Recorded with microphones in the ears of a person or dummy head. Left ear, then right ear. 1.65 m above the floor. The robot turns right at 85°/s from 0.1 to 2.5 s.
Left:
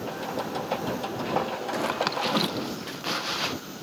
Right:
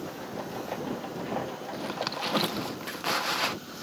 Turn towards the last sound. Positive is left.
turn(degrees=-160)